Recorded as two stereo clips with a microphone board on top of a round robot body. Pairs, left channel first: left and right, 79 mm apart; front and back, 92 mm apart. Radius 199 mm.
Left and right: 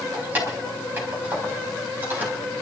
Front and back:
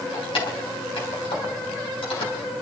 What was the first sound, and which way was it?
Keys jangling, 25° right.